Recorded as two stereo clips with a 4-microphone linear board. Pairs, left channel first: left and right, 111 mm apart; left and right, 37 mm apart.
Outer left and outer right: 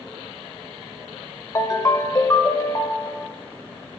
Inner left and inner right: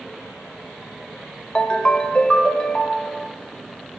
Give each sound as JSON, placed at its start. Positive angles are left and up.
{"t": 1.6, "sound": "a ringtone", "side_deg": 30, "distance_m": 0.8}